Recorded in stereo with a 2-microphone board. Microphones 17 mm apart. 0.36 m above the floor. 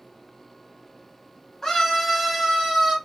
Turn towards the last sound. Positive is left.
turn(degrees=-30)  # may be behind; listen again after turning